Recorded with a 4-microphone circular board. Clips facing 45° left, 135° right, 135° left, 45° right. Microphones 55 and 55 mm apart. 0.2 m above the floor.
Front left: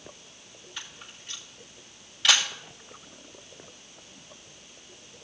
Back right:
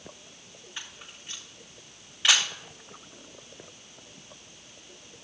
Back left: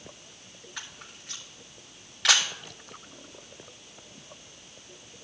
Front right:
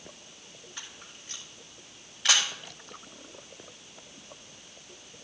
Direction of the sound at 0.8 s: 155° left.